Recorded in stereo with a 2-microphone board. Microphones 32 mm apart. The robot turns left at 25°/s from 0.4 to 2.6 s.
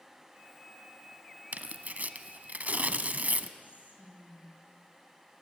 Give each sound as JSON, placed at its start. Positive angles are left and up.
{"t": 1.5, "sound": "tearing paper", "side_deg": -60, "distance_m": 0.7}
{"t": 3.6, "sound": "whispering", "side_deg": 60, "distance_m": 5.0}